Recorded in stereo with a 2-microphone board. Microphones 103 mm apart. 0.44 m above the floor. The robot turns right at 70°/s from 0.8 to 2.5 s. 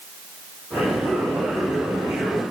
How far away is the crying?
No crying in this recording.